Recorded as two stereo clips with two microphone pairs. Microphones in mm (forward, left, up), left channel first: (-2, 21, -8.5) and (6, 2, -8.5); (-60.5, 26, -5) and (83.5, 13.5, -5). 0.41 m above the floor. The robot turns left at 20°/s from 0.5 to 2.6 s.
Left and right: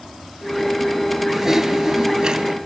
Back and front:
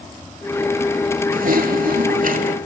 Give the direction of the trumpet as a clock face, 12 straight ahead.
No trumpet in this recording.